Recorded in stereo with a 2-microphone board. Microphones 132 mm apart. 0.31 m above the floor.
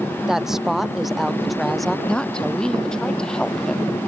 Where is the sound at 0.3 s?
5° right (ahead or behind); by 2.0 s centre (ahead or behind).